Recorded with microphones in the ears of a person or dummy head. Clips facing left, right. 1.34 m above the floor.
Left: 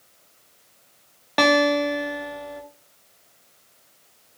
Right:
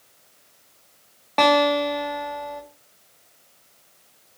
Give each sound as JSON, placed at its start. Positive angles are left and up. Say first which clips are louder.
{"t": 1.4, "sound": "a guitar", "louder": "even", "side_deg": 15, "distance_m": 0.6}